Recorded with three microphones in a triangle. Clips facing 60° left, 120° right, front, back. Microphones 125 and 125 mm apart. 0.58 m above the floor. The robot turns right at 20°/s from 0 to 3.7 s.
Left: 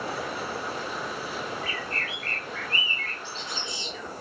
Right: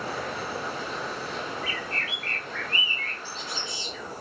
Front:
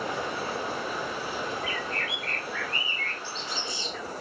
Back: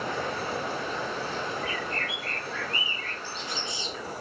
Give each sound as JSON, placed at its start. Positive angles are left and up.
{"t": 1.6, "sound": "a bird", "azimuth_deg": 80, "distance_m": 1.0}